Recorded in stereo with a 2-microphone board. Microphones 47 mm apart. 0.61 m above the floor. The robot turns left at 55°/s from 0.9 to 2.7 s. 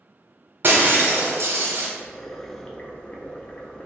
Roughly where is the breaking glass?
Ahead right.